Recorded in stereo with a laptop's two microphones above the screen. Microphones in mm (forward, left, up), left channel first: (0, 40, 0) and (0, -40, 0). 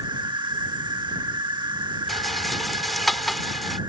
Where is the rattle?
Centre (ahead or behind).